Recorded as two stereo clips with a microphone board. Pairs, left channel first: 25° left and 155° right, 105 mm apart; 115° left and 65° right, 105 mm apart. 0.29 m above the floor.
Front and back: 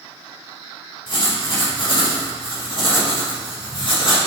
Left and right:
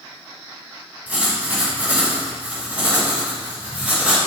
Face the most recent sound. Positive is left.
turn(degrees=5)